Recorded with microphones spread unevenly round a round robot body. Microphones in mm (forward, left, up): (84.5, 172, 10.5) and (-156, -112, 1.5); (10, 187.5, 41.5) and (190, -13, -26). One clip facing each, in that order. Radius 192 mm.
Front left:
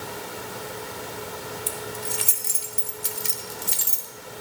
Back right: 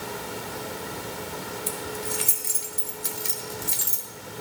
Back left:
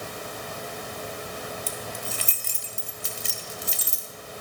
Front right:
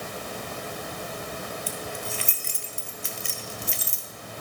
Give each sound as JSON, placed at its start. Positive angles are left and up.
{"t": 1.7, "sound": "keys jangling", "azimuth_deg": 85, "distance_m": 1.2}